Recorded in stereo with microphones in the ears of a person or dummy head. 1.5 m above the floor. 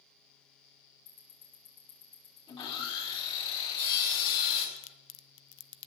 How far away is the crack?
About 0.7 m.